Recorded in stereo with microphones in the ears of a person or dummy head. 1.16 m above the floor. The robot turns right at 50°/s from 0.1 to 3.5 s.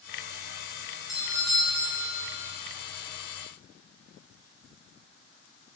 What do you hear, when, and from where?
1.1 s a doorbell: straight behind, 1.0 m; by 2.5 s 105° right, 1.0 m